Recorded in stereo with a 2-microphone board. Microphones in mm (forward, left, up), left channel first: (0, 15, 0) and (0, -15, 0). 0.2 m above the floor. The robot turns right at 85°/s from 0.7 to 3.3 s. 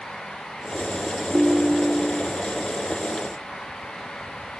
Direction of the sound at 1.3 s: 140° right.